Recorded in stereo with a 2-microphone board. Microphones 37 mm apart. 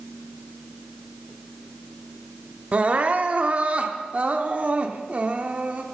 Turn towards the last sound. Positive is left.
turn(degrees=-35)  # may be behind; listen again after turning